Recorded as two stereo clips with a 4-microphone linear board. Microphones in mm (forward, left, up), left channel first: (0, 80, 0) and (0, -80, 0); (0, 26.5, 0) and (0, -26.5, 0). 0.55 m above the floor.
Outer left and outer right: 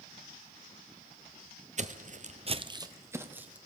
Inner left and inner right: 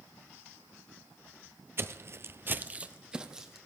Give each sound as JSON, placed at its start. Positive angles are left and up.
{"t": 1.8, "sound": "footsteps", "side_deg": -50, "distance_m": 0.9}